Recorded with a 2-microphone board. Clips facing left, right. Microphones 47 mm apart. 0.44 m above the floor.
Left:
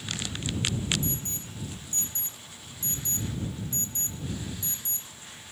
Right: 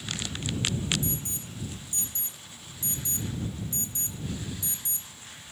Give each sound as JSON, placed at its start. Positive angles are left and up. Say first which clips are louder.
{"t": 1.0, "sound": "an alarm", "louder": "even", "side_deg": 45}